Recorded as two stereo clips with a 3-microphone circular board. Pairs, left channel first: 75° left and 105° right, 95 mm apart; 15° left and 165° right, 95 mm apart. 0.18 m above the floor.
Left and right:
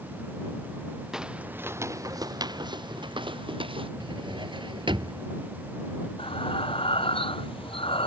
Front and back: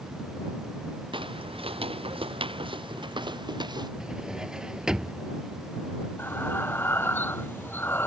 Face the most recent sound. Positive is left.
turn(degrees=80)